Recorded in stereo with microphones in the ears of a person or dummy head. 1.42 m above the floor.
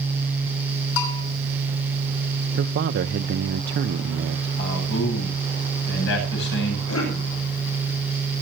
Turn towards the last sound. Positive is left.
turn(degrees=90)